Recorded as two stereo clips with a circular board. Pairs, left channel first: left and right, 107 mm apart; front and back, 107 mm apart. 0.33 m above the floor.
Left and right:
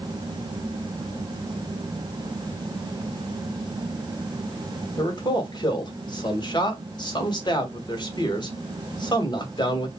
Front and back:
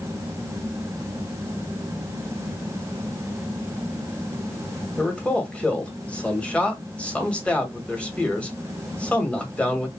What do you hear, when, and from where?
5.0 s a man speaking: 75° left, 1.7 m